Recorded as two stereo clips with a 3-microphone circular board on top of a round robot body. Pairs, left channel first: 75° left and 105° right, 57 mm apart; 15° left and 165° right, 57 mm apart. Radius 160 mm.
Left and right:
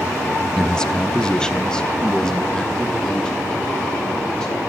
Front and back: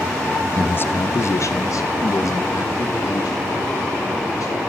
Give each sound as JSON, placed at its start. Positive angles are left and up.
{"t": 0.6, "sound": "a man speaking", "azimuth_deg": 10, "distance_m": 0.6}